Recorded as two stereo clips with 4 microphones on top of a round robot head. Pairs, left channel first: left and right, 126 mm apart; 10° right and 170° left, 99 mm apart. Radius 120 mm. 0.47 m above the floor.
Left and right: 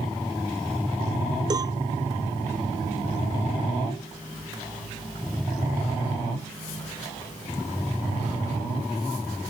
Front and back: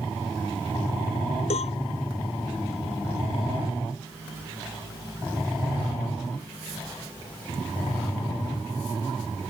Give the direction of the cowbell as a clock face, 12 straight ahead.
1 o'clock.